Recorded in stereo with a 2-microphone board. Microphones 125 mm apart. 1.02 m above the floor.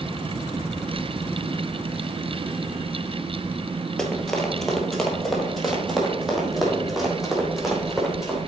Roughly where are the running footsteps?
Centre.